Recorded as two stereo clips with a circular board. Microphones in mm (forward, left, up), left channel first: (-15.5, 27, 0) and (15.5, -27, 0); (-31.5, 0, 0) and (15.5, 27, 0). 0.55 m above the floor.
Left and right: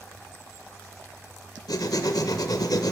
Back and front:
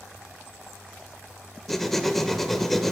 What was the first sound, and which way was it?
Writing, 125° left.